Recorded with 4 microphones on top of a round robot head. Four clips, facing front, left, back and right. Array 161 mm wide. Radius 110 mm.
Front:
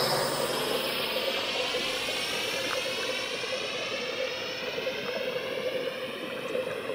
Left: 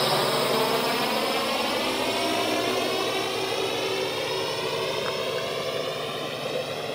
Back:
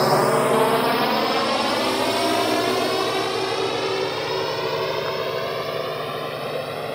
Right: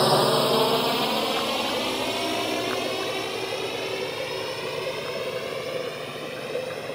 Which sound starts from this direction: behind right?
A drone, at 0.0 s.